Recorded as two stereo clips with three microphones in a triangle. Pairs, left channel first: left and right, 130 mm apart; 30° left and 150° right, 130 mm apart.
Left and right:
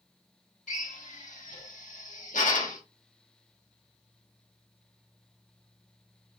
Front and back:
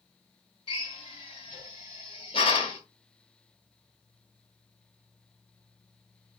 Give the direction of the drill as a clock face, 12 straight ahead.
9 o'clock.